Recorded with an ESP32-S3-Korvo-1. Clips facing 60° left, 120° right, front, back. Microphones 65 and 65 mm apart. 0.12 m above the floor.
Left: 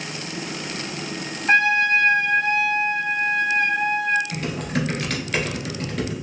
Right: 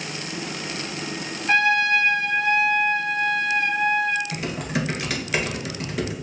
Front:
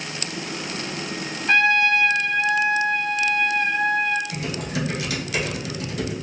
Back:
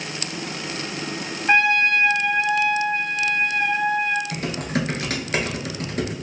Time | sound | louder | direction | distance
1.5 | a trumpet | left 2 dB, even | 110° left | 0.7 m
4.3 | typing on a keyboard | left 1 dB, back 2 dB | 160° left | 1.0 m